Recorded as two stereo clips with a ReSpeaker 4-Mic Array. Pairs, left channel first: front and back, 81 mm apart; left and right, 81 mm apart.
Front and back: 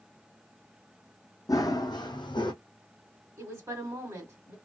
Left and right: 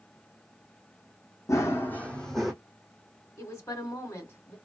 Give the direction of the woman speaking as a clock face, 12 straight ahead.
7 o'clock.